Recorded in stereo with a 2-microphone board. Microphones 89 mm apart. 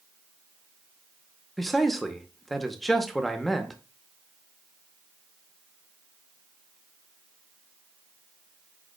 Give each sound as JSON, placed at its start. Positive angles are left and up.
{"t": 1.6, "sound": "a man speaking", "side_deg": 0, "distance_m": 0.7}